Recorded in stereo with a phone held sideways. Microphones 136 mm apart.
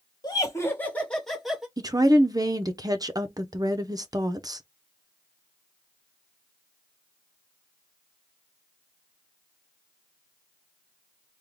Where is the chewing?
I don't hear chewing.